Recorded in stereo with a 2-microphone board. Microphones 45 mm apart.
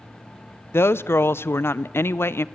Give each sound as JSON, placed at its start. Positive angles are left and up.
{"t": 0.7, "sound": "a woman speaking", "side_deg": 60, "distance_m": 0.6}